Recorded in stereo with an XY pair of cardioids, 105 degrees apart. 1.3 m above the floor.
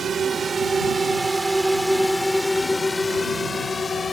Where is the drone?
45° right; by 4.1 s 35° left.